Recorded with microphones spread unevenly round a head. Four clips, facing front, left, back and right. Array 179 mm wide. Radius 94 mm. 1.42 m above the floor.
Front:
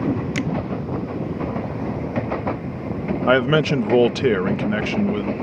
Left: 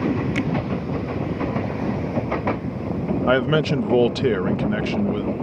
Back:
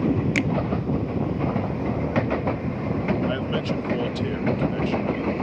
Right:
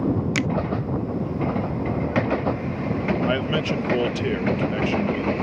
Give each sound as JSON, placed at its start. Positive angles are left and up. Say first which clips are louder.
{"t": 0.3, "sound": "a finger snap", "louder": "left 1 dB, even", "azimuth_deg": -125}
{"t": 3.3, "sound": "a man speaking", "louder": "left 5 dB, front 9 dB", "azimuth_deg": 25}